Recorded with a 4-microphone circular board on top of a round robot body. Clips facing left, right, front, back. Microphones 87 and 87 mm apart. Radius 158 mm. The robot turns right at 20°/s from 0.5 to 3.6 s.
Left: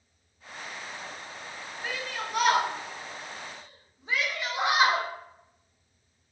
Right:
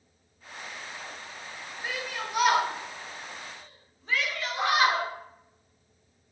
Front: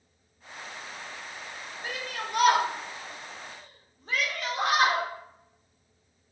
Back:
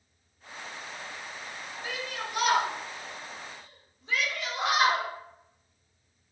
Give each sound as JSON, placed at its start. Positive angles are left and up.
{"t": 1.8, "sound": "a shout", "azimuth_deg": -15, "distance_m": 1.2}